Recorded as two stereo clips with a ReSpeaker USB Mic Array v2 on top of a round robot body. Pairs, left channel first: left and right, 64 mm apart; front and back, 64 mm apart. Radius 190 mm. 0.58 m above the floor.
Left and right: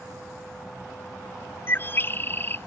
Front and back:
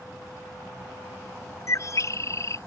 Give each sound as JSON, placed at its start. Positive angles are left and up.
{"t": 1.7, "sound": "a bird", "azimuth_deg": 35}